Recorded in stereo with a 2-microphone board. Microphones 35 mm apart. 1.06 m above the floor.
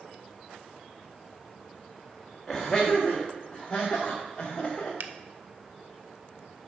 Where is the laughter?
5° left (ahead or behind), 1.1 m; by 4.9 s 10° left (ahead or behind), 2.5 m.